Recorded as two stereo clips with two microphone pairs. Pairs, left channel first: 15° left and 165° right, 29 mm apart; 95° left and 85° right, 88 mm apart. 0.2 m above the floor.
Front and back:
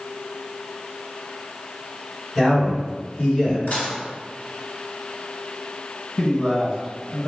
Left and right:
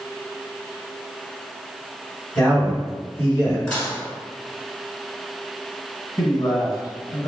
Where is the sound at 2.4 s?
95° left, 1.8 m; by 3.6 s 45° left, 1.9 m.